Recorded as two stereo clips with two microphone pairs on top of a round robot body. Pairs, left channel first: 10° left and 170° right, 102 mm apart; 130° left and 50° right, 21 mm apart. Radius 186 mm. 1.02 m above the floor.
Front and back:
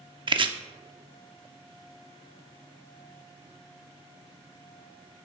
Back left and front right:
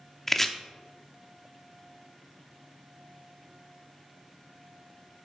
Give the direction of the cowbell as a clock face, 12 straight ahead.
I don't hear a cowbell.